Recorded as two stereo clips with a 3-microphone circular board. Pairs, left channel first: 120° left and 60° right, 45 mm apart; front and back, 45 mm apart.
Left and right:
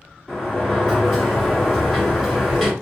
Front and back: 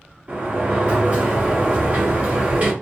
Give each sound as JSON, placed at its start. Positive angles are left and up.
{"t": 0.3, "sound": "a sliding door", "azimuth_deg": -155, "distance_m": 1.6}